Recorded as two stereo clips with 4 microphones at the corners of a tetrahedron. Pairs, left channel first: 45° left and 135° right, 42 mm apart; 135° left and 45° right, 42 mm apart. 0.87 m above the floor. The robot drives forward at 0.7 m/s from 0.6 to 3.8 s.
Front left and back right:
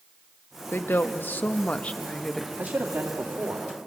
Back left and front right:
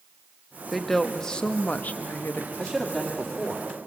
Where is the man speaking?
145° right, 1.8 m; by 3.7 s 155° right, 2.5 m.